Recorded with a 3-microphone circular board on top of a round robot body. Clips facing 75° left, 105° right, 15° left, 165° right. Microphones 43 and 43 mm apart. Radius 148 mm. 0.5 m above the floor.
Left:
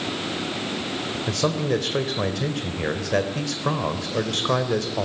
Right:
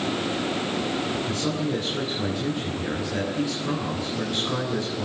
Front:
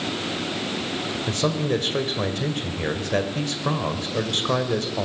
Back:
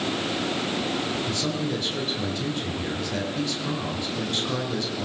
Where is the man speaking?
60° left, 3.5 m.